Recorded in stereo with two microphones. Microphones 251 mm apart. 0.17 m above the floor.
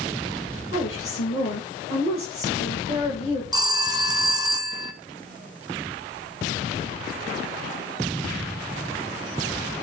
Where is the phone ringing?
15° right (ahead or behind), 0.8 m.